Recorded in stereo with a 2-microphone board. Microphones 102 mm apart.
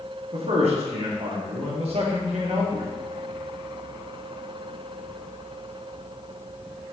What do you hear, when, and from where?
0.3 s a man speaking: 65° right (ahead or behind), 1.2 m